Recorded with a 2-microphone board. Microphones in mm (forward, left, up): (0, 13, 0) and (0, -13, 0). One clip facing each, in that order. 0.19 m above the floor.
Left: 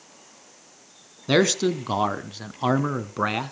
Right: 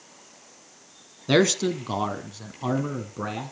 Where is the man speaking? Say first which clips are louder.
Left 1 dB; 5° left (ahead or behind), 1.5 m; by 3.5 s 55° left (ahead or behind), 1.6 m.